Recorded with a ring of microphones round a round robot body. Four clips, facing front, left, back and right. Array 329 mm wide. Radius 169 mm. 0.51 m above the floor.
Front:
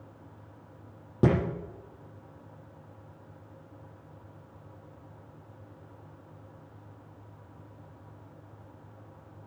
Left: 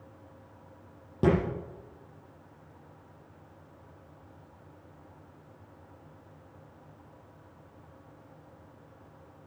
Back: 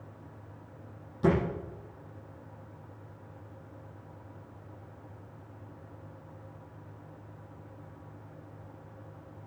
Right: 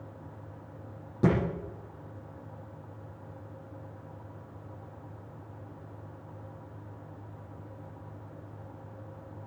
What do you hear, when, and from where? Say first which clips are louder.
1.2 s a thud: left 1 dB, front 1 dB; 10° left, 7 m